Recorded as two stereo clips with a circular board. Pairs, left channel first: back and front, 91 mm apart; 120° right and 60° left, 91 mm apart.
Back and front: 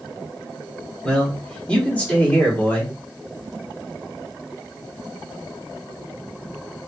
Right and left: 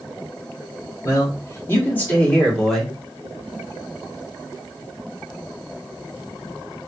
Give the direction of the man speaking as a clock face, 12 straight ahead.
4 o'clock.